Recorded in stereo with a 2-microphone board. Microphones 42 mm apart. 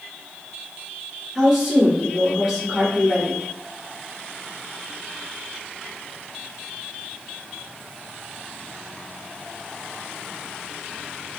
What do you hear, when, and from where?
1.4 s a woman speaking: 10° right (ahead or behind), 1.6 m